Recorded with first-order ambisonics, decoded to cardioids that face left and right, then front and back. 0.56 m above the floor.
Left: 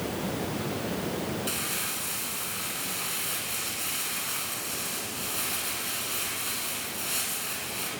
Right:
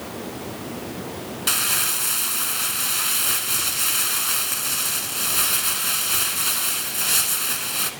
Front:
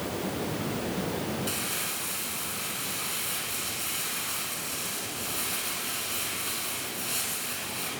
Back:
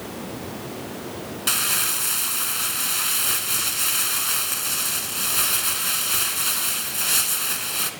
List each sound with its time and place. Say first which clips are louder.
1.5 s crumpling: right 9 dB, back 9 dB; 140° right, 1.0 m